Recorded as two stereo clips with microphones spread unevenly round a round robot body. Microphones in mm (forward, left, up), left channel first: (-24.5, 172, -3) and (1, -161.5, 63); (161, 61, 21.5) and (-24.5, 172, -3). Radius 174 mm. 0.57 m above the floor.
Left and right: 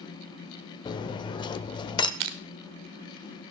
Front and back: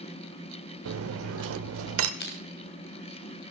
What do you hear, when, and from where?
0.8 s cutlery clinking: 170° left, 0.9 m
2.2 s crushing: 95° right, 1.3 m